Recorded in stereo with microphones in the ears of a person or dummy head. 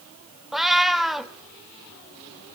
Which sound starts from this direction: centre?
A cat meowing, at 0.5 s.